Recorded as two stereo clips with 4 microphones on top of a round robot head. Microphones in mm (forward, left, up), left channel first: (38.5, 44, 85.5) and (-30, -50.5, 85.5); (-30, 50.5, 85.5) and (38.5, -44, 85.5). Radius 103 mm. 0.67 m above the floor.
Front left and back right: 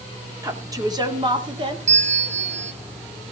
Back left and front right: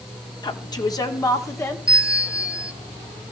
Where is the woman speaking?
175° left, 2 m; by 1.8 s 165° right, 2.5 m.